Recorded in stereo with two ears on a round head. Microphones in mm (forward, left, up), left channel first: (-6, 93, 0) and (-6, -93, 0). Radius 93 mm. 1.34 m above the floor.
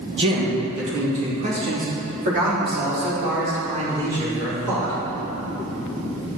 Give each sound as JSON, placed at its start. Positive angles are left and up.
{"t": 0.2, "sound": "a man speaking", "side_deg": -30, "distance_m": 1.3}